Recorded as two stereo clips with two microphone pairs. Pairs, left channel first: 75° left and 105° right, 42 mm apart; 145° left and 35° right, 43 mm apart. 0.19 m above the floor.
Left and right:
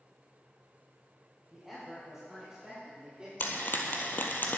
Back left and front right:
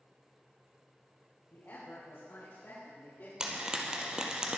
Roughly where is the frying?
Ahead left.